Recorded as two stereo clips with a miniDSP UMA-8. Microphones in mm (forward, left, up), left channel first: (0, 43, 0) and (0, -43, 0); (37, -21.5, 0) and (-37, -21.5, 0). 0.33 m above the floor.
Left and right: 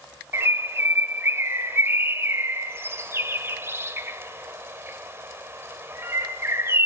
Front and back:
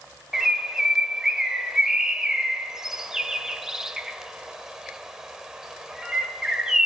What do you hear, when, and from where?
0.3 s a bird: 105° right, 1.0 m